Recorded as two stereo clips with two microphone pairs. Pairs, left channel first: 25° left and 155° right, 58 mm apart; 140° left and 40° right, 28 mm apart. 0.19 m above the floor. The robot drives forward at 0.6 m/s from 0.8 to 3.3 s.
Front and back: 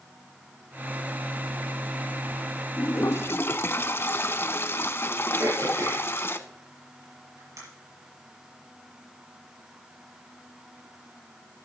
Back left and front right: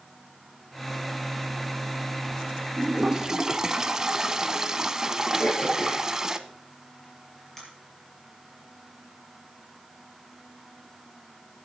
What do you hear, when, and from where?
2.8 s a toilet flushing: 10° left, 0.9 m; by 6.4 s 20° left, 0.6 m
5.4 s throat clearing: 145° right, 5.5 m